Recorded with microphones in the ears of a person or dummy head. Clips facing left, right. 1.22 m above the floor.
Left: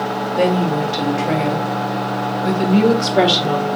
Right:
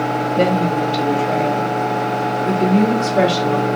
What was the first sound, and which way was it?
A woman speaking, 50° left (ahead or behind).